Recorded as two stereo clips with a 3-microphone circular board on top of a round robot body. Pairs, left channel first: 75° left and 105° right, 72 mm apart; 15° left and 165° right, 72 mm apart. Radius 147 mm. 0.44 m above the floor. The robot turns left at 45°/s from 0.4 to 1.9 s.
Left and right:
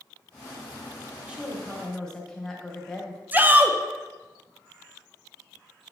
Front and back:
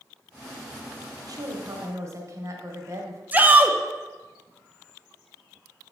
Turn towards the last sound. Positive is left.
turn(degrees=-135)